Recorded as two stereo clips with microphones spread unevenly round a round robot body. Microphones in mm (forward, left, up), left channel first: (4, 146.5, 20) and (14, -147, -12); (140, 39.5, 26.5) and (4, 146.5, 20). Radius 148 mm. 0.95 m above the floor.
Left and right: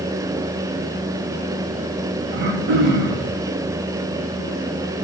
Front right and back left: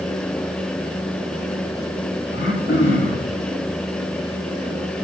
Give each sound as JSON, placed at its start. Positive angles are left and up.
{"t": 2.3, "sound": "throat clearing", "azimuth_deg": -100, "distance_m": 2.5}